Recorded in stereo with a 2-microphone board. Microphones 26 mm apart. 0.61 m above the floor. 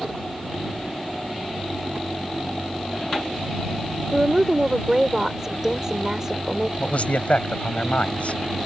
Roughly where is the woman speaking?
Right.